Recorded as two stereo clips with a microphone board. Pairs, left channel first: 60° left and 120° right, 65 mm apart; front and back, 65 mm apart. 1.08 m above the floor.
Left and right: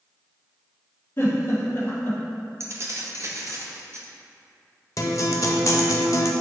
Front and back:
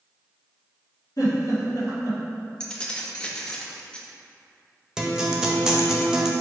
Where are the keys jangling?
75° right, 0.5 m.